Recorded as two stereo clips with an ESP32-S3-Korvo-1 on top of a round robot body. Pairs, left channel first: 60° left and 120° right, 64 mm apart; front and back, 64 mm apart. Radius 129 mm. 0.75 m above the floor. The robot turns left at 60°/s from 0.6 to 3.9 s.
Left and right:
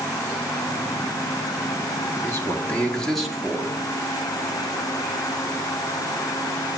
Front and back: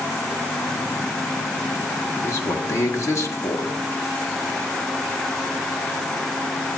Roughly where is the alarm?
I don't hear an alarm.